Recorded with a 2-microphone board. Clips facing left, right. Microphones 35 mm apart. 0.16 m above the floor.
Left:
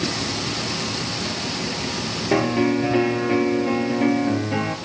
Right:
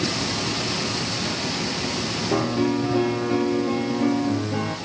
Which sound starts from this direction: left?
A piano, at 2.3 s.